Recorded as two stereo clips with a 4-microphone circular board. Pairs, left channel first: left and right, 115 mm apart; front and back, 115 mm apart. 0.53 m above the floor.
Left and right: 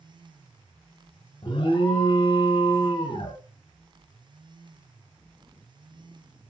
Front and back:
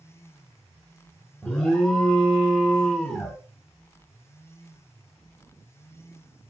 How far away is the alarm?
About 0.6 m.